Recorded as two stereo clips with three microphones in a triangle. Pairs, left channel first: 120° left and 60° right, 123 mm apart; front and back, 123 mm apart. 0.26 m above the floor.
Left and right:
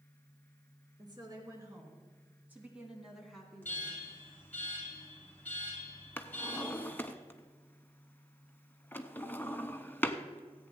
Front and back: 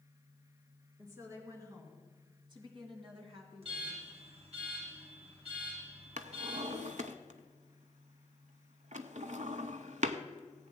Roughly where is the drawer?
Behind.